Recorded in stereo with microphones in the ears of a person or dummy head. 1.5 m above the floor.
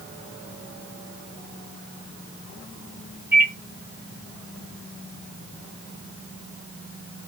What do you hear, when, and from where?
3.3 s a microwave: 15° right (ahead or behind), 1.7 m